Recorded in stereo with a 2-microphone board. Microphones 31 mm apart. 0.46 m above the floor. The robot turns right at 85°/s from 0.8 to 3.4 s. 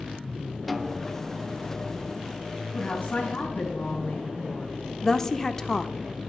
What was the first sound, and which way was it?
A snare drum, centre (ahead or behind).